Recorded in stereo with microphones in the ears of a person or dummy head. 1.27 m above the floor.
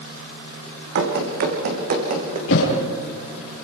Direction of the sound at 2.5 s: 80° left.